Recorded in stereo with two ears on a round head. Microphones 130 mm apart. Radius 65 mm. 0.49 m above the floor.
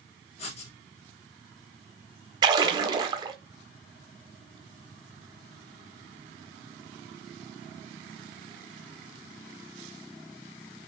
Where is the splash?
30° right (ahead or behind), 0.9 m.